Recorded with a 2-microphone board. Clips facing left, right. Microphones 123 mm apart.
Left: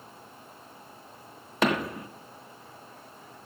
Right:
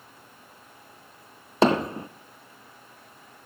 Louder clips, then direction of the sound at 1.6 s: Right 5 dB; 30° right (ahead or behind).